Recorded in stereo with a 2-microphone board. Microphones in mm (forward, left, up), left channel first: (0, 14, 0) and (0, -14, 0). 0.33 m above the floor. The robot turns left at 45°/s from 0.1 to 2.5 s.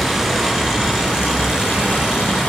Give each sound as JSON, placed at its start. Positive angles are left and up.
{"t": 0.0, "sound": "running water", "azimuth_deg": 170, "distance_m": 4.5}